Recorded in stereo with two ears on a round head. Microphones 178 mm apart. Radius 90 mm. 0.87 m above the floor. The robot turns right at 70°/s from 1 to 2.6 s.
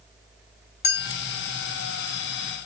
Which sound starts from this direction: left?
A clink, at 0.8 s.